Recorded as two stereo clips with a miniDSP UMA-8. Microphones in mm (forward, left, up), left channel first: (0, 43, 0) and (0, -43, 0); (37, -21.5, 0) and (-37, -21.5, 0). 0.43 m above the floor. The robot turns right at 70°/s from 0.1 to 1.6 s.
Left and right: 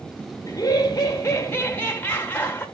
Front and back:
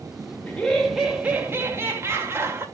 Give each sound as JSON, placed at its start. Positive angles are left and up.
{"t": 0.5, "sound": "laughter", "azimuth_deg": 65, "distance_m": 1.5}